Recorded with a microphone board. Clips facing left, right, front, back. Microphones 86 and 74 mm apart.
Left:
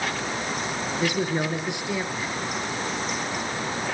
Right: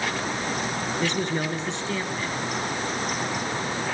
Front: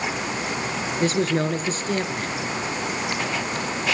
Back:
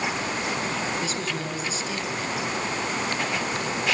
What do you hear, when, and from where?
1.0 s a man speaking: 15° left, 2 m